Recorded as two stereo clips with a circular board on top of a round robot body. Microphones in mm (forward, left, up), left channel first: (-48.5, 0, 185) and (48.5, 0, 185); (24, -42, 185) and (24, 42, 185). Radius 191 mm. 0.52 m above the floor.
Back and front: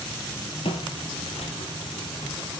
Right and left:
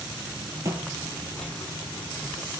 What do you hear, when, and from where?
0.7 s footsteps: 145° left, 0.7 m; by 2.6 s 150° right, 1.6 m